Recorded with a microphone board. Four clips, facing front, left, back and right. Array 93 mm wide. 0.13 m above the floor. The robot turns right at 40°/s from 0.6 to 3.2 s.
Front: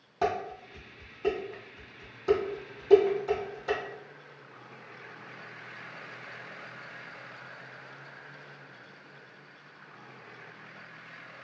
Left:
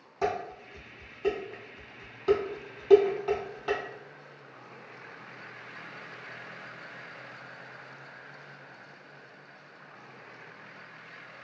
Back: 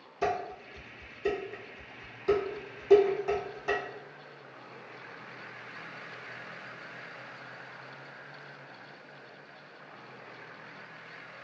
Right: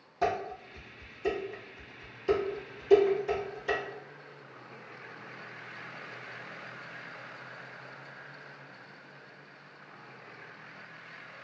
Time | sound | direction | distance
0.2 | dishes clattering | 10° left | 2.0 m